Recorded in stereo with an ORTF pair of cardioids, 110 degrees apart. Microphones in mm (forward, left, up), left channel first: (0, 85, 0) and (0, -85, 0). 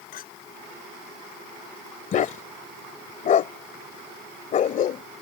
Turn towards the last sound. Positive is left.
turn(degrees=50)